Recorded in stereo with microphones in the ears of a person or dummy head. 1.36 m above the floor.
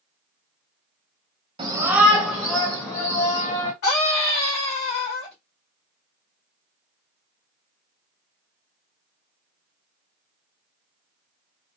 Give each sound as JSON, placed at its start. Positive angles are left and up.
{"t": 1.6, "sound": "a shout", "side_deg": -35, "distance_m": 1.1}
{"t": 3.8, "sound": "a scream", "side_deg": 70, "distance_m": 2.5}